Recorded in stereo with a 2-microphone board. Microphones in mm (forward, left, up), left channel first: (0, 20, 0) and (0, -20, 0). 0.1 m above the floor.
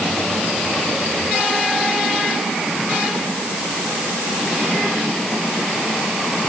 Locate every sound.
Only background noise.